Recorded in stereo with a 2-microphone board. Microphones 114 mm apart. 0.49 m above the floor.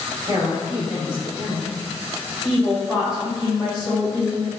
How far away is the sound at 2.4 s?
About 1.6 m.